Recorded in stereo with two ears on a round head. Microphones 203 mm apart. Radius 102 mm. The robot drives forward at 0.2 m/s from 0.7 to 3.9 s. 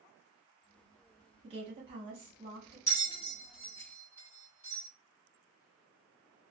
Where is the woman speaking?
25° right (ahead or behind), 1.0 m.